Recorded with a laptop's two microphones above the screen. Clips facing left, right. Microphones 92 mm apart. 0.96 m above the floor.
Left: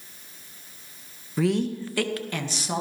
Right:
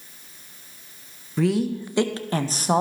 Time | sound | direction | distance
1.4 | a woman speaking | 5° left (ahead or behind) | 0.7 m